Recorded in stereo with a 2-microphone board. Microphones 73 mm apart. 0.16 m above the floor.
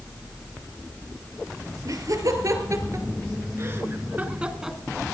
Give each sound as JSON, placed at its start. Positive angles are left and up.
{"t": 1.9, "sound": "laughter", "side_deg": -55, "distance_m": 3.5}